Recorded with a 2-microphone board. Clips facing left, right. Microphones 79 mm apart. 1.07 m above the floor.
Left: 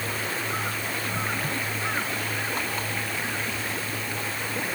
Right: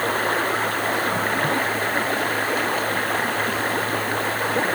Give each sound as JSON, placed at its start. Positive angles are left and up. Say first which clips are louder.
{"t": 0.0, "sound": "running water", "louder": "right 9 dB", "side_deg": -55}